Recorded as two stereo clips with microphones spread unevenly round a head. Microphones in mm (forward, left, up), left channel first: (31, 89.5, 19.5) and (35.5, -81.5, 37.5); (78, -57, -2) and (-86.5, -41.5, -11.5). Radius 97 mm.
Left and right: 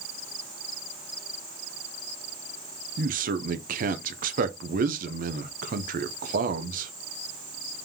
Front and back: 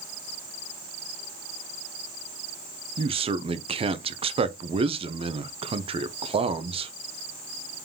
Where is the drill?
I don't hear a drill.